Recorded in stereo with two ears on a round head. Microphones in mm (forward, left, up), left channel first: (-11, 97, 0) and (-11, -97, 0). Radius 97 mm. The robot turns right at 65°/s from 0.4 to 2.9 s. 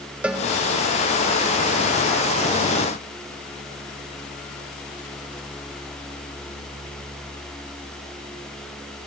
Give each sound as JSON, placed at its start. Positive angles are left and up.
{"t": 0.2, "sound": "a cowbell", "side_deg": -5, "distance_m": 0.7}